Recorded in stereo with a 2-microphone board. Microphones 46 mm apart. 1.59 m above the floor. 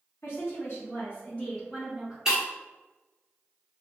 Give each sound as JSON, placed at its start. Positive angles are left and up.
{"t": 0.2, "sound": "a woman speaking", "side_deg": 65, "distance_m": 1.6}
{"t": 2.2, "sound": "breaking glass", "side_deg": -10, "distance_m": 1.1}